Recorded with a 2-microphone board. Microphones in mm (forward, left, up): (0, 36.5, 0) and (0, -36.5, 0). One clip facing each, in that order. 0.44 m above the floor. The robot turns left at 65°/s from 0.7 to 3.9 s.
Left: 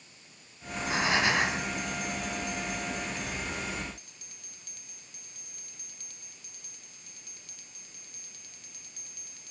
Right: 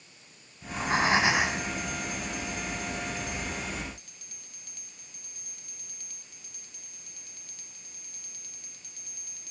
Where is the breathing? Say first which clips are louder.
Right 4 dB; 125° right, 4 m; by 1.7 s 170° left, 4 m.